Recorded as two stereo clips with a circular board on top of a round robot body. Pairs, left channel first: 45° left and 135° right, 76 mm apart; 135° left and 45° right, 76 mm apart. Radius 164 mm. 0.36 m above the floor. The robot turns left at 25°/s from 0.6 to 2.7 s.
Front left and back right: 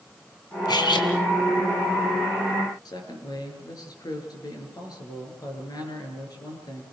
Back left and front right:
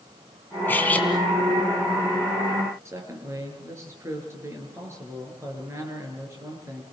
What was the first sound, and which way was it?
Cutlery clinking, 70° left.